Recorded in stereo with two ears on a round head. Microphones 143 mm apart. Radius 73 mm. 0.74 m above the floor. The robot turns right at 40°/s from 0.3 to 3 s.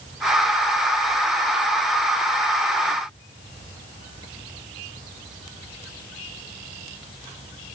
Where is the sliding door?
I don't hear a sliding door.